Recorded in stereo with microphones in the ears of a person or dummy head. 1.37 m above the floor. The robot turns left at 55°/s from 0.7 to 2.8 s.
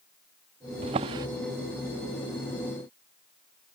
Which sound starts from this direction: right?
A drawer, at 0.8 s.